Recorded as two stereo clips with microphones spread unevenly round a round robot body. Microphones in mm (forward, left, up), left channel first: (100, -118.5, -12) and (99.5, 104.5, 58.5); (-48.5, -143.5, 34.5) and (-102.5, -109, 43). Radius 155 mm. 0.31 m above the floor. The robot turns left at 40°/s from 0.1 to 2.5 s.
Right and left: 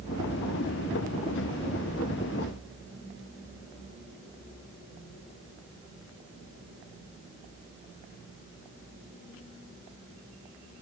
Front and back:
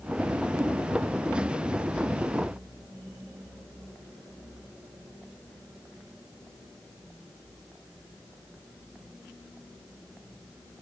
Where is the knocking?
No knocking in this recording.